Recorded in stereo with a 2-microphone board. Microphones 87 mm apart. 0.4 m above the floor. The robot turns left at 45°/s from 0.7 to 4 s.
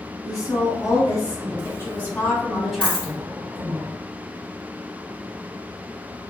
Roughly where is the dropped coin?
Right.